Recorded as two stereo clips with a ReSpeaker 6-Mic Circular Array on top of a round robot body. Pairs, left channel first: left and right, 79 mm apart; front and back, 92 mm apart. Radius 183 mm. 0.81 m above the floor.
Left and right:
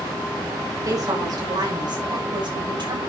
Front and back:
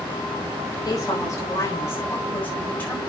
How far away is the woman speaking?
About 4.5 m.